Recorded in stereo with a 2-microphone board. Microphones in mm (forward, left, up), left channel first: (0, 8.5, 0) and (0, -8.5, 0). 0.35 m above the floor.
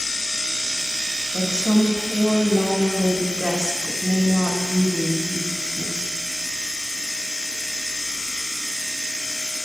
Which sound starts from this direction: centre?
A woman speaking, at 1.3 s.